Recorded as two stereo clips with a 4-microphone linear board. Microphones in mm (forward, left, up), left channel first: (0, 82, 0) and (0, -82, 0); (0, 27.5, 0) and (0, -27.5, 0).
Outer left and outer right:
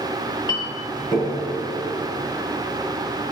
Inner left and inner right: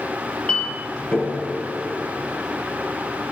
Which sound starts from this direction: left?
A clink, at 0.5 s.